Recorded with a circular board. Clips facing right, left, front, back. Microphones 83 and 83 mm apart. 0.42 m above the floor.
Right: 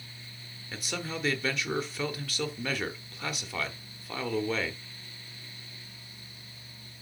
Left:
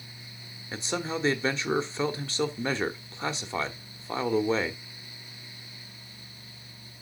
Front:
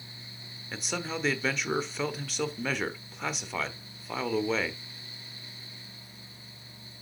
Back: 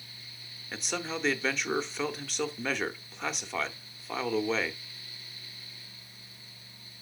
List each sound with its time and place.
0.7 s a man speaking: 85° left, 1.0 m